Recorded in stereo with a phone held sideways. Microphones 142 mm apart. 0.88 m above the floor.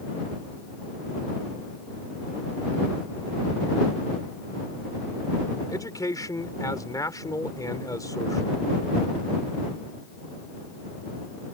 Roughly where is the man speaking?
Left.